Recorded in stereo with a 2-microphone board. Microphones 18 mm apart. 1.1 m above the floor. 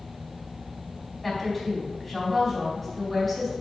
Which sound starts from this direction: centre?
A woman speaking, at 1.2 s.